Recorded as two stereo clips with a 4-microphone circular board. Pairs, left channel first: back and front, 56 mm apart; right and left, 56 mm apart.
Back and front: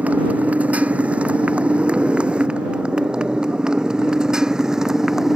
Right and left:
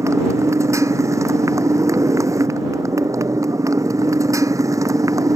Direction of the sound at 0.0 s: 65° left.